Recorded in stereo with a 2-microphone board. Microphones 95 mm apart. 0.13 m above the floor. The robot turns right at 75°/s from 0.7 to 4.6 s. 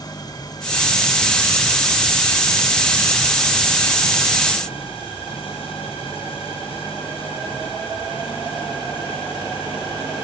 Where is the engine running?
135° left; by 10.2 s 70° left.